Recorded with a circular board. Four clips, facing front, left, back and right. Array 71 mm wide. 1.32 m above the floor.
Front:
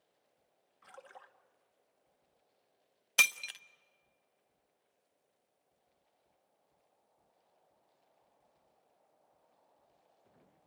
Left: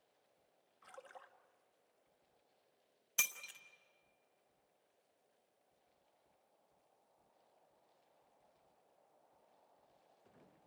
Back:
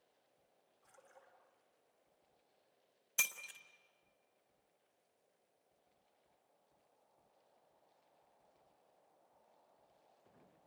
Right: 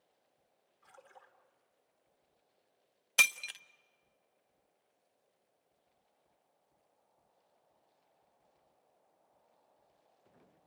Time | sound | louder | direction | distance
0.8 | a splash | left 3 dB, front 11 dB | 30° left | 1.7 m
3.2 | breaking glass | right 13 dB, front 11 dB | 40° right | 0.7 m